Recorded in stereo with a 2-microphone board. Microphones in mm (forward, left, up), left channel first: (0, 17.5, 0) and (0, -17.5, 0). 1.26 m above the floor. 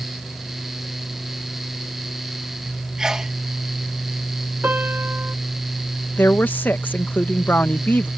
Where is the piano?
60° right (ahead or behind).